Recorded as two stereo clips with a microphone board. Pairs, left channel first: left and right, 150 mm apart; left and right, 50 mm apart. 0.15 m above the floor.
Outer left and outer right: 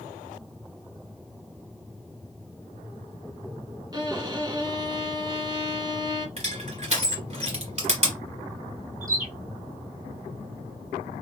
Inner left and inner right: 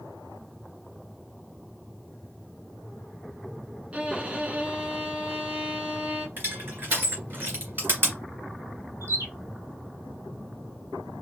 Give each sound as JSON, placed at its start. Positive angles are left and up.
{"t": 3.9, "sound": "a violin", "side_deg": -30, "distance_m": 0.9}
{"t": 6.4, "sound": "crushing", "side_deg": -45, "distance_m": 2.0}
{"t": 9.0, "sound": "a bird", "side_deg": -70, "distance_m": 1.6}